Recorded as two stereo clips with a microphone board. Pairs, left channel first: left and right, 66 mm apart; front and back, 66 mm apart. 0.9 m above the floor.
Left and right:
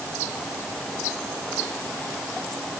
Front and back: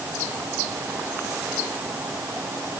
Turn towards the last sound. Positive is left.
No sound to turn to.